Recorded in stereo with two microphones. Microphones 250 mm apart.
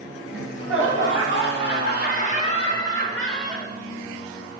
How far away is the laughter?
About 2 m.